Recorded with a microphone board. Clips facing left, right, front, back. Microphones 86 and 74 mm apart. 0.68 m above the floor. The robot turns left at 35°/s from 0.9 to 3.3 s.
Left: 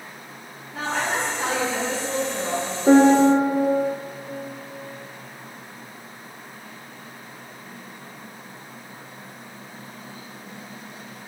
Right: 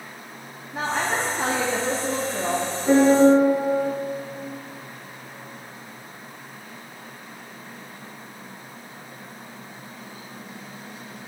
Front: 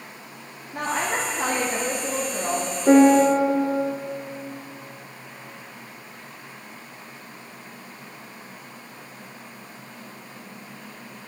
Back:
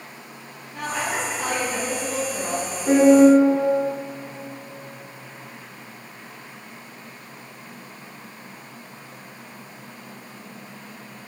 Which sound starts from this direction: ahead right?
A woman speaking, at 0.7 s.